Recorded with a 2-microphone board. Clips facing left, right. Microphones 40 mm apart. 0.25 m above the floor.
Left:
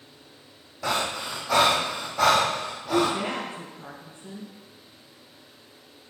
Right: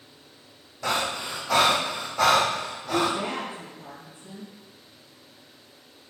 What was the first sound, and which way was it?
Breathing, 5° left (ahead or behind).